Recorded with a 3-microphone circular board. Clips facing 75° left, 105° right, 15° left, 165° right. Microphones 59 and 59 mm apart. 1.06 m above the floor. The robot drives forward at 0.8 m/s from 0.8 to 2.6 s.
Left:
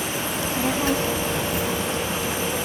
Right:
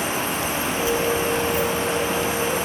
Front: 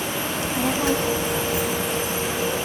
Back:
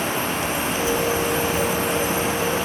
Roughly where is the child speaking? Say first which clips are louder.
Even, even; ahead left.